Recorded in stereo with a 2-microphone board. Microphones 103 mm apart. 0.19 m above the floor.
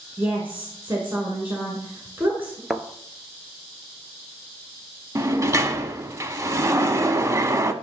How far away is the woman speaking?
About 1.8 m.